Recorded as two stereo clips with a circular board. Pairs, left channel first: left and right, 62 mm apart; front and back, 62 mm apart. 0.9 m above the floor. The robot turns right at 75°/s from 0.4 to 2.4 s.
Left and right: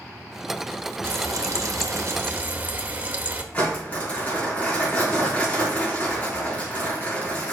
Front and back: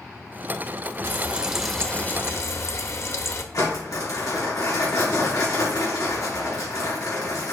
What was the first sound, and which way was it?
Frying, 135° right.